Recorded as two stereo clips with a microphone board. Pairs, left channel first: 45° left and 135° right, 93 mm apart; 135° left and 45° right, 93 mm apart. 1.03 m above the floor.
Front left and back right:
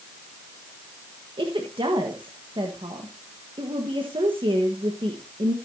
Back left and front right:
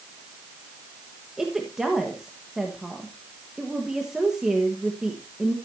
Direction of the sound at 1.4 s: 130° right.